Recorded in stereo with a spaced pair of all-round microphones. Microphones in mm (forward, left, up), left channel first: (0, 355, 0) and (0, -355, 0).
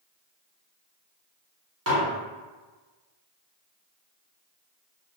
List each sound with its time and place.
1.9 s dishes clattering: 20° right (ahead or behind), 0.9 m